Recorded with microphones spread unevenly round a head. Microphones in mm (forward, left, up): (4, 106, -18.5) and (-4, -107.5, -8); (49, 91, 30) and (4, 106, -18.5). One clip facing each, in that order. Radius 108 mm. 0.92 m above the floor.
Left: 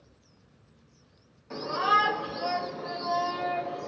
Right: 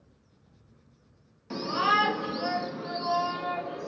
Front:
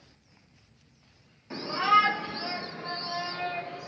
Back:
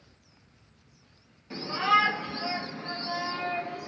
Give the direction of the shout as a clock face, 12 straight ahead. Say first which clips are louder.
Right 1 dB, front 1 dB; 4 o'clock.